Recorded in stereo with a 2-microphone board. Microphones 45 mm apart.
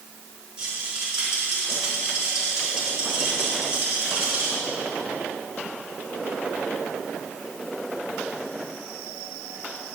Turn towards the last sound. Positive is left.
turn(degrees=-15)  # may be behind; listen again after turning